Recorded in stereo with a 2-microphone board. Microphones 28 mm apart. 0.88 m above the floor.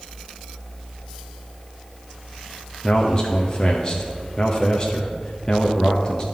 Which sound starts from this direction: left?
A man speaking, at 2.8 s.